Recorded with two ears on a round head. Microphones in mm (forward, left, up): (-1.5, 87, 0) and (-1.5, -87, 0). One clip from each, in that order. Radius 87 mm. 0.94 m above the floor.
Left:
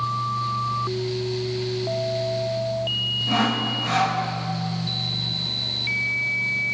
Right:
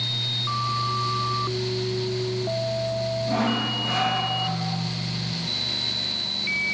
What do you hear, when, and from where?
3.3 s sawing: 35° left (ahead or behind), 1.1 m